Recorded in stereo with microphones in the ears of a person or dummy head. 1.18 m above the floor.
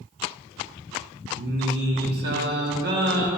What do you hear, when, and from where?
1.4 s singing: 65° right (ahead or behind), 1.9 m